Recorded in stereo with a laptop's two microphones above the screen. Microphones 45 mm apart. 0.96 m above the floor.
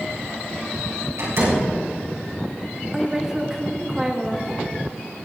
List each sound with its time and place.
1.2 s a door slam: 70° right (ahead or behind), 5 m
2.9 s a woman speaking: 15° right (ahead or behind), 1.3 m